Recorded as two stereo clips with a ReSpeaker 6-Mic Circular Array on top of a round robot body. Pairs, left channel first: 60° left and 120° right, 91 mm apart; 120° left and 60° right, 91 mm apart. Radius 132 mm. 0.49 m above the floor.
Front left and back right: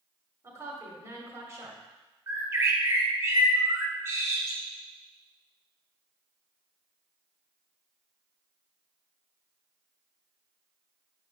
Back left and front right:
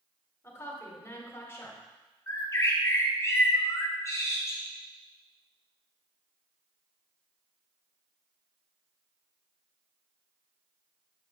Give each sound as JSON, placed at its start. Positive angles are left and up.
{"t": 0.4, "sound": "a woman speaking", "azimuth_deg": -175, "distance_m": 2.0}
{"t": 2.3, "sound": "a bird", "azimuth_deg": 180, "distance_m": 1.2}